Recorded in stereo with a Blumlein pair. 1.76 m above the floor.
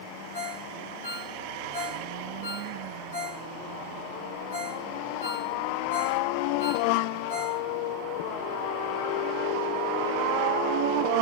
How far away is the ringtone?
About 3.5 m.